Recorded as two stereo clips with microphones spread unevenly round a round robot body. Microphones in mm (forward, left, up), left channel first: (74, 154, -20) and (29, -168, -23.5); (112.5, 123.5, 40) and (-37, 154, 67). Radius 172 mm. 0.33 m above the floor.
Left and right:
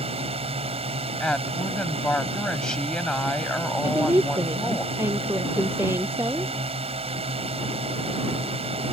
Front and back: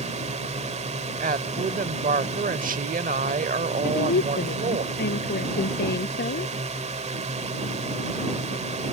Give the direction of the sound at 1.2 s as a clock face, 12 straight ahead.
6 o'clock.